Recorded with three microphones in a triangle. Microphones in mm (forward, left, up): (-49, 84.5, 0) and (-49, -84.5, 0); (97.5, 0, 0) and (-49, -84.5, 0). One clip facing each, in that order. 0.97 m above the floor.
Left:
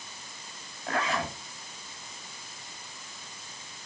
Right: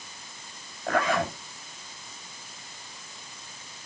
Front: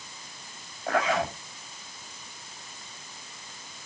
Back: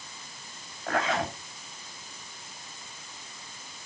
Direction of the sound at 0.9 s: 50° right.